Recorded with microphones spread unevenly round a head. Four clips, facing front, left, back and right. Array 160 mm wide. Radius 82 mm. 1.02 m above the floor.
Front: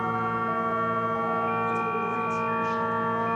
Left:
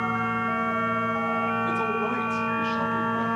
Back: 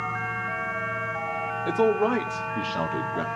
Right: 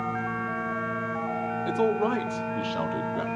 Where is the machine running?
10° left, 2.5 m.